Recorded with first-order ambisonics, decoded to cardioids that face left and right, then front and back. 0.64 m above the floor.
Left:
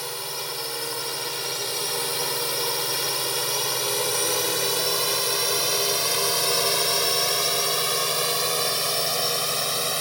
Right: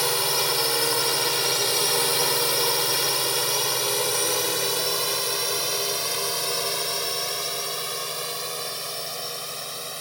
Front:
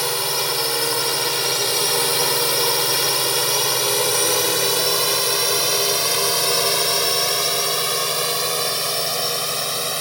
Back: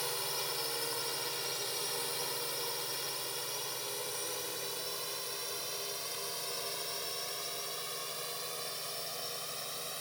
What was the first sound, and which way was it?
A drone, 35° right.